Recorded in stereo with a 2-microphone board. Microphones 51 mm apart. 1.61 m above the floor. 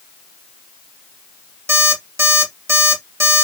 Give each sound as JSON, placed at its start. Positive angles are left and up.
{"t": 1.7, "sound": "an alarm clock", "side_deg": -65, "distance_m": 1.8}